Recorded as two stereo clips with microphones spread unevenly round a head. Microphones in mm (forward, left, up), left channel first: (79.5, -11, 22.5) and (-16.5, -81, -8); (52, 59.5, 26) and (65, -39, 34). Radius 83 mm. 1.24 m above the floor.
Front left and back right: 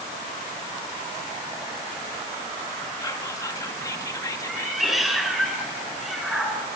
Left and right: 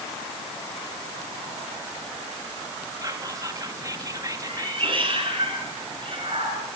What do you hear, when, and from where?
3.0 s whispering: 30° right, 2.5 m
4.5 s a cat meowing: 55° right, 8 m